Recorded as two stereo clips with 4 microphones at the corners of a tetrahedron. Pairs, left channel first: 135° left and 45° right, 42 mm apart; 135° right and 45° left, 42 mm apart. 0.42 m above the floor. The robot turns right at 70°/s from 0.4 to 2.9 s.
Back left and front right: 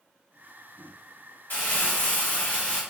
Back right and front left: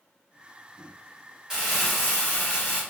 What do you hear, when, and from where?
1.5 s crumpling: 115° left, 1.2 m; by 2.8 s 155° right, 1.2 m